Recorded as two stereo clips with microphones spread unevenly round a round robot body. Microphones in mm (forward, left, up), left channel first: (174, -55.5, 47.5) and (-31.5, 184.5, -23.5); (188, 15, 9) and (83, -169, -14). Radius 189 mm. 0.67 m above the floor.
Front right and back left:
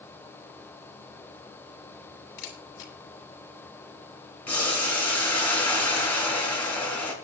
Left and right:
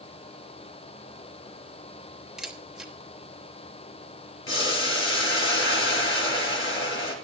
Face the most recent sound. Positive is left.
turn(degrees=35)